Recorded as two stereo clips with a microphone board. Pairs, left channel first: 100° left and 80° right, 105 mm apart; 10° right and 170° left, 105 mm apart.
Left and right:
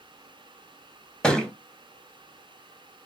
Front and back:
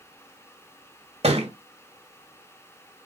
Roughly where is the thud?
Behind.